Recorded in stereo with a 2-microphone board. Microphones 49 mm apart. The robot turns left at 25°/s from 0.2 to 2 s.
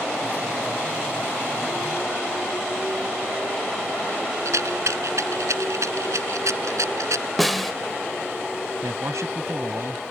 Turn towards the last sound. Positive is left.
turn(degrees=-85)